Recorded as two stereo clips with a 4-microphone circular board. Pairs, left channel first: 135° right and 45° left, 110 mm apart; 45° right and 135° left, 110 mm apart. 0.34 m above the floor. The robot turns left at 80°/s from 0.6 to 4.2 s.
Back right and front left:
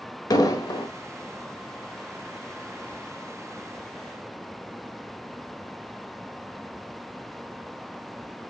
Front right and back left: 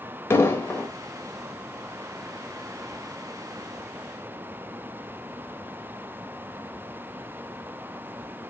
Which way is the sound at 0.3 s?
100° right.